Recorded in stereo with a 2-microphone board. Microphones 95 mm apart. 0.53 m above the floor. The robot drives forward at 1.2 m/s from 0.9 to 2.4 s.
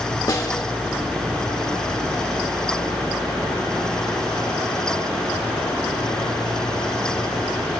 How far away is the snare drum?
About 0.9 m.